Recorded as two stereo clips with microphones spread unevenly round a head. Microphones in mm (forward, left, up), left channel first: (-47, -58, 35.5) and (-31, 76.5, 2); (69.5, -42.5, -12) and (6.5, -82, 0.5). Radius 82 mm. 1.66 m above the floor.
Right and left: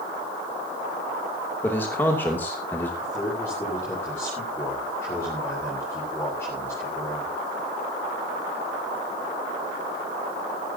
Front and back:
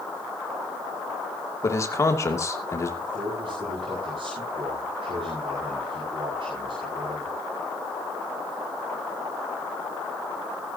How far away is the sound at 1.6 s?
About 3 m.